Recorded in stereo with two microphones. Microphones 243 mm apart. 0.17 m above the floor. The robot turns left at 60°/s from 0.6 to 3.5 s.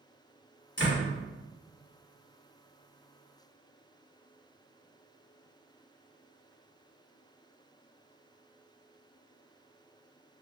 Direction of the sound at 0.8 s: 45° left (ahead or behind).